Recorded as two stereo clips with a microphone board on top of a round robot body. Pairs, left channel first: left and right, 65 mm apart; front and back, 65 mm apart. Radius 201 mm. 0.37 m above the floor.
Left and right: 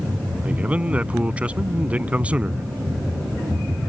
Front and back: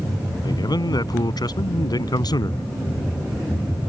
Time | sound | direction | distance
0.4 | a man speaking | 20° right | ?